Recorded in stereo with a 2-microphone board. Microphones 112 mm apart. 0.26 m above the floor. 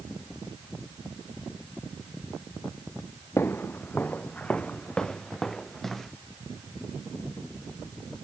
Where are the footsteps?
20° left (ahead or behind); by 6.1 s centre (ahead or behind).